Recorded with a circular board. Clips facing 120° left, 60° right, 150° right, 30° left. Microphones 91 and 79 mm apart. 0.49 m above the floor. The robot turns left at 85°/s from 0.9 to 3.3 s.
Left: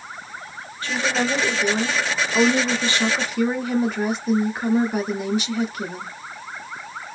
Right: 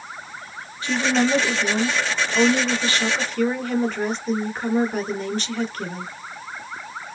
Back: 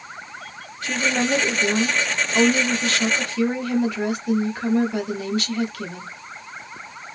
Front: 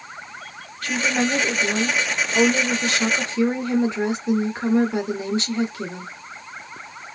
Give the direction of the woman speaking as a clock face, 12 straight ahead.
4 o'clock.